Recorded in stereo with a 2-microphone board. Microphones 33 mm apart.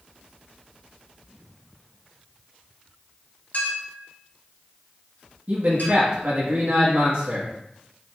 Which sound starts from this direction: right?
A man speaking, at 5.5 s.